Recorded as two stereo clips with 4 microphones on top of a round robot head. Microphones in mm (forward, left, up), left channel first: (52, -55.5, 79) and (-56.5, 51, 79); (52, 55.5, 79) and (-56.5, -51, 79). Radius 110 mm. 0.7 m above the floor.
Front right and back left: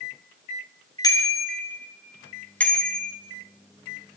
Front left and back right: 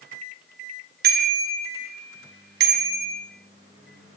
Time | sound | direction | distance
1.0 | a bicycle bell | 110° right | 4 m